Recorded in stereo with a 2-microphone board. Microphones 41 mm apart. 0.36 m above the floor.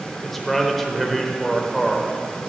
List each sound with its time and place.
0.2 s a man speaking: 5° left (ahead or behind), 0.9 m